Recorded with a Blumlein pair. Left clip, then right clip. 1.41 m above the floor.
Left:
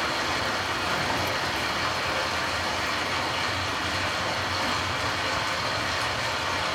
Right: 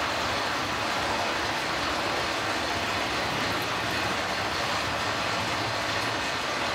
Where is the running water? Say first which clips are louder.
Left 1 dB; 60° left, 1.3 m.